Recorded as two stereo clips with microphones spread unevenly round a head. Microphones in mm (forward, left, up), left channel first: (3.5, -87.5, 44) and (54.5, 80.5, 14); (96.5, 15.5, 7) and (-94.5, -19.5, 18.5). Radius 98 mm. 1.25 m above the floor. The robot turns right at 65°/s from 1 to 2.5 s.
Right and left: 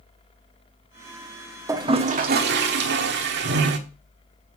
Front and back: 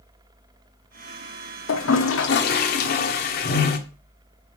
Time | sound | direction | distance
1.7 | a toilet flushing | 5° right | 1.3 m